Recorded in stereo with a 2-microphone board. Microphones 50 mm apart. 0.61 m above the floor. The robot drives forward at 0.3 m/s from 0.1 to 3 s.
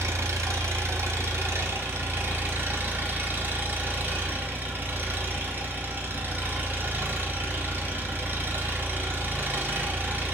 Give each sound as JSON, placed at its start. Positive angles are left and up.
{"t": 0.0, "sound": "an engine running", "side_deg": -75, "distance_m": 0.9}